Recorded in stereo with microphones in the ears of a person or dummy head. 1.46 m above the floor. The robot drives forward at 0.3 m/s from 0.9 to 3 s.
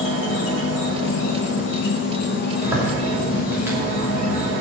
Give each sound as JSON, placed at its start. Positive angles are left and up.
{"t": 0.0, "sound": "an insect", "side_deg": 80, "distance_m": 1.3}
{"t": 2.6, "sound": "a zipper", "side_deg": -10, "distance_m": 3.0}